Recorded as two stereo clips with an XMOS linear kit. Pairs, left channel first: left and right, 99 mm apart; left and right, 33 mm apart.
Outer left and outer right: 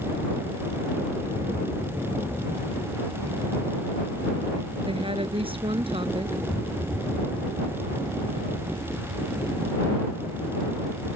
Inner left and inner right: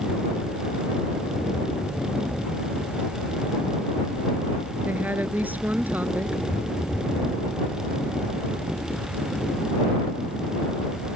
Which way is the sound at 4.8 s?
65° right (ahead or behind).